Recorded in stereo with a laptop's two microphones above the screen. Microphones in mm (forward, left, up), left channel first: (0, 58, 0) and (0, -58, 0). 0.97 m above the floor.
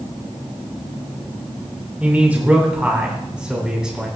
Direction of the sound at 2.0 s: 15° right (ahead or behind).